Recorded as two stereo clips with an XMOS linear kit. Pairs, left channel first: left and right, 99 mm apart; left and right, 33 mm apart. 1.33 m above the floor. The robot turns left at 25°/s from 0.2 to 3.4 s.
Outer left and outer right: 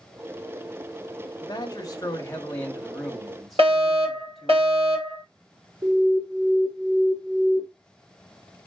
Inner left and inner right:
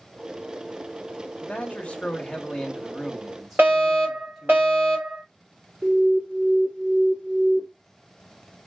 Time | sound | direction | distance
1.4 | a man speaking | 50° left | 1.2 m
3.6 | a fire alarm | 75° right (ahead or behind) | 3.5 m
5.8 | an alarm | 55° right (ahead or behind) | 1.5 m